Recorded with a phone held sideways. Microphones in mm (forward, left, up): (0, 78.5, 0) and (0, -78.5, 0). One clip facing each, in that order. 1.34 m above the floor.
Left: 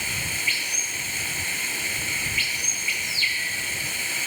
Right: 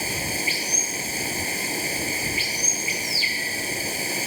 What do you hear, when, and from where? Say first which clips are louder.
0.0 s running water: right 7 dB; 35° right (ahead or behind)